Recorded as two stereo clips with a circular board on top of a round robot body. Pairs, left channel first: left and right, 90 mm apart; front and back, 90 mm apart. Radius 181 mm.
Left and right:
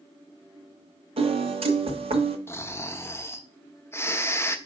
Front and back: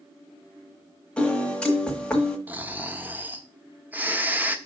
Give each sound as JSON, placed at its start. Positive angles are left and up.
{"t": 1.2, "sound": "a piano", "azimuth_deg": -80, "distance_m": 1.2}
{"t": 2.5, "sound": "snoring", "azimuth_deg": 125, "distance_m": 1.1}